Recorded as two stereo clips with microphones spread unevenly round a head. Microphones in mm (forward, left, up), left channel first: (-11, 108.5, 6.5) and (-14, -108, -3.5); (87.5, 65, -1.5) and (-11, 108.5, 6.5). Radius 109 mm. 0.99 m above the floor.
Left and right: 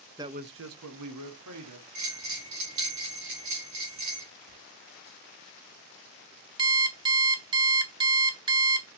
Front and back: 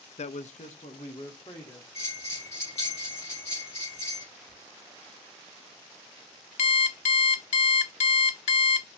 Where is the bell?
85° right, 4.5 m.